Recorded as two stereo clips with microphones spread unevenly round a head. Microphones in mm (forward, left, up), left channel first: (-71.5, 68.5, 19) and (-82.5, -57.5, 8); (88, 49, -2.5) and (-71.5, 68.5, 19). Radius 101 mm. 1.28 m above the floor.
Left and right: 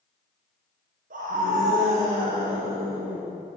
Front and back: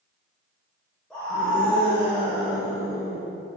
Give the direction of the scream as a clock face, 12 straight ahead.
3 o'clock.